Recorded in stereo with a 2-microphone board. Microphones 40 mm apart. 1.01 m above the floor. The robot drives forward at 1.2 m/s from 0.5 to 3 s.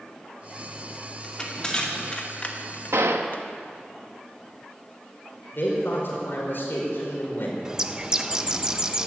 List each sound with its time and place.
1.2 s crushing: 15° left (ahead or behind), 2.5 m; by 3.4 s 50° left (ahead or behind), 1.0 m
2.9 s a gunshot: 85° right, 0.9 m
5.5 s a man speaking: 60° left (ahead or behind), 4.5 m
7.7 s a bird: 20° right (ahead or behind), 0.6 m